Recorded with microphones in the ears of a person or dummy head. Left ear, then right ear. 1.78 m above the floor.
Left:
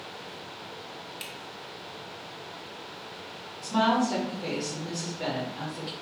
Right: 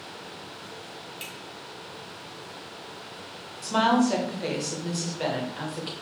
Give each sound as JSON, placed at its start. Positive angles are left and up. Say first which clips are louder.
{"t": 1.2, "sound": "a finger snap", "louder": "right 1 dB", "side_deg": 10, "distance_m": 0.7}
{"t": 3.6, "sound": "a woman speaking", "louder": "right 2 dB", "side_deg": -20, "distance_m": 0.7}